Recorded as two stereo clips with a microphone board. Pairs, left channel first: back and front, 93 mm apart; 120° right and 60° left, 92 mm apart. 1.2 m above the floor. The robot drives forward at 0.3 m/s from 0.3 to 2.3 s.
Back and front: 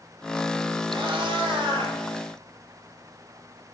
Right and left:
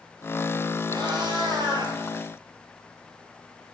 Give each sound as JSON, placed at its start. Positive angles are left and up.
{"t": 0.9, "sound": "a cat meowing", "azimuth_deg": 20, "distance_m": 3.5}